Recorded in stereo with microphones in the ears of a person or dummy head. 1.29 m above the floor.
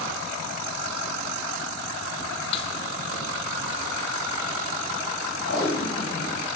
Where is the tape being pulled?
65° left (ahead or behind), 2 m.